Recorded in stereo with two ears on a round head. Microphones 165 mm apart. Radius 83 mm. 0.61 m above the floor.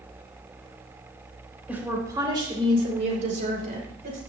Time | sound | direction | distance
1.7 | a woman speaking | 10° right (ahead or behind) | 2.5 m